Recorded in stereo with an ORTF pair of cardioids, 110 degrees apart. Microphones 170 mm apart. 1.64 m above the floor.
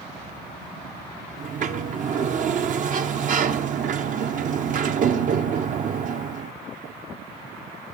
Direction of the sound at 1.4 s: 50° right.